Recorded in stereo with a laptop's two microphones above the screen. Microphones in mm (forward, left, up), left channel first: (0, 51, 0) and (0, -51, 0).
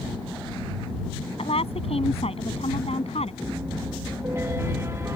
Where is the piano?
25° right (ahead or behind).